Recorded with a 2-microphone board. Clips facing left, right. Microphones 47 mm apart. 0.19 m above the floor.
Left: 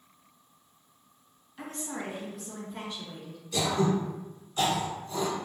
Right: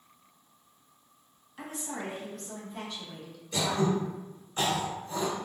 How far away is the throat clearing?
About 1.7 m.